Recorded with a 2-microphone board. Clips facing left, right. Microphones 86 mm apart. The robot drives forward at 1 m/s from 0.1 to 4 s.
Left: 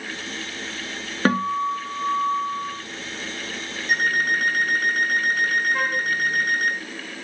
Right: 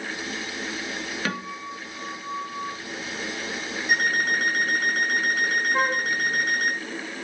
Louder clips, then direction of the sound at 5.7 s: Right 1 dB; 25° right (ahead or behind).